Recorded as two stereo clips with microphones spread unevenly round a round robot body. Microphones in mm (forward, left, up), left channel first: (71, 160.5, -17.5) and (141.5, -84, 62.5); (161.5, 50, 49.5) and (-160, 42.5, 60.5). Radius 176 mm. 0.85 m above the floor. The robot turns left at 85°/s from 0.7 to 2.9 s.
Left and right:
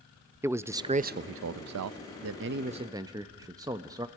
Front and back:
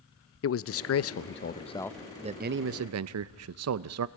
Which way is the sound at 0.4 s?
20° left.